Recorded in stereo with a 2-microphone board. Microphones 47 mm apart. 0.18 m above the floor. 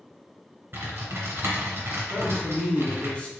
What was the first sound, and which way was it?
Typing on a keyboard, 50° right (ahead or behind).